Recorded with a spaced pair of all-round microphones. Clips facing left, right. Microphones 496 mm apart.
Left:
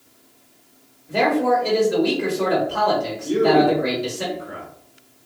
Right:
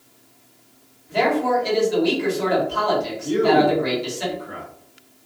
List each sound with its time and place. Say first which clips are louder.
1.1 s a man speaking: left 1 dB; 70° left (ahead or behind), 1.1 m
3.2 s a man speaking: left 1 dB; 15° right (ahead or behind), 0.7 m